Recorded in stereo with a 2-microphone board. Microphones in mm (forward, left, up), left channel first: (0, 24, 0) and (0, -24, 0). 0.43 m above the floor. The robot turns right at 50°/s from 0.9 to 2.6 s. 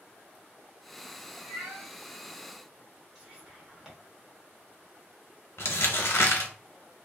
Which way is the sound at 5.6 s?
60° left (ahead or behind).